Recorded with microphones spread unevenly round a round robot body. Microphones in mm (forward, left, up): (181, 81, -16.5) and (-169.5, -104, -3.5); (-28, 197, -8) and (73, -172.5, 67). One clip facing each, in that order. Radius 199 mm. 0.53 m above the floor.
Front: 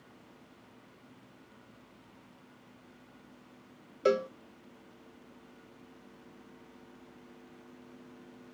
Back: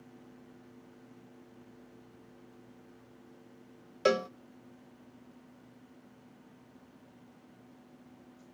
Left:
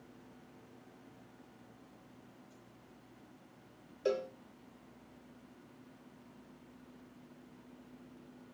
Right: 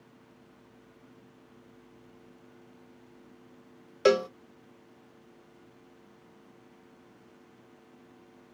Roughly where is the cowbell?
Right.